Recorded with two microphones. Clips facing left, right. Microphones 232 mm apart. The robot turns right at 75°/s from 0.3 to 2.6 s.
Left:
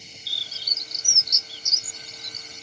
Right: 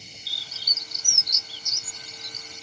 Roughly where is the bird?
Centre.